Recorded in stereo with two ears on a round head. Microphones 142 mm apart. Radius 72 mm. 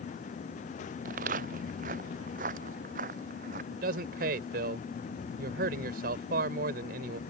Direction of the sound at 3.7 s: 65° right (ahead or behind).